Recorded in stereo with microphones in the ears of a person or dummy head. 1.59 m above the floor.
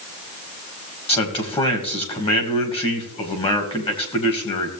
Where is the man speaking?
30° left (ahead or behind), 1.8 m.